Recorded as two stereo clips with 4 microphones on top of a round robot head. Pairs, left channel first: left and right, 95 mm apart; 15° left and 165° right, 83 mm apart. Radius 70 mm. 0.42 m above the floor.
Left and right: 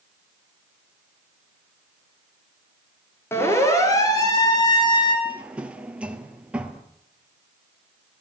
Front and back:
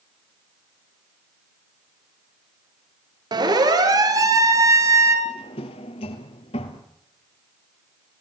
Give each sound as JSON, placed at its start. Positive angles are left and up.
{"t": 3.3, "sound": "a siren", "azimuth_deg": 160, "distance_m": 6.0}
{"t": 5.2, "sound": "a drawer", "azimuth_deg": -10, "distance_m": 2.5}